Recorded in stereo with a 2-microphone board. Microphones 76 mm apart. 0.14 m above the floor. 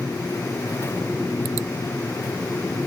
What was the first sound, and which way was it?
Only background noise.